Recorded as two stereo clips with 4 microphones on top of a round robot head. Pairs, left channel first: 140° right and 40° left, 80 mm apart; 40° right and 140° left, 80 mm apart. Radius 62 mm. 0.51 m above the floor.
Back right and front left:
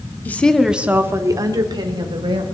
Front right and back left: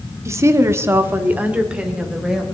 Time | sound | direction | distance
0.2 | a woman speaking | 165° left | 1.1 m